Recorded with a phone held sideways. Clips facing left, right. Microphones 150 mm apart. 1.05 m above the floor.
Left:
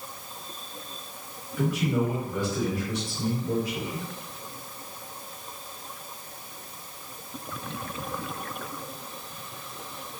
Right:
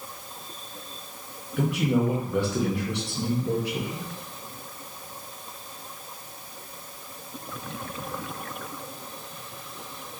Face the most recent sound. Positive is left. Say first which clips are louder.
# right 2 dB
turn(degrees=-70)  # may be behind; listen again after turning